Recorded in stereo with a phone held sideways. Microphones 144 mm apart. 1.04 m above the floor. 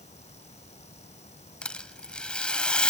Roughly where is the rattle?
Centre.